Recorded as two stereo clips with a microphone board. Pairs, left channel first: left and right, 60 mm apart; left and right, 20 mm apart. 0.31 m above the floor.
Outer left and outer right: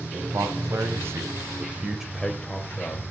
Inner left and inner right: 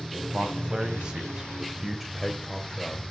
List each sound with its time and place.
0.1 s a man speaking: 60° right (ahead or behind), 1.9 m; by 3.0 s 30° left (ahead or behind), 1.3 m